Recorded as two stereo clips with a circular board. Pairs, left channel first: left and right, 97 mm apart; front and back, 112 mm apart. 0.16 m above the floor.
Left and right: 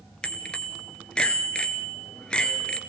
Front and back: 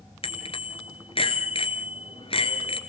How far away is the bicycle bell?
About 2 m.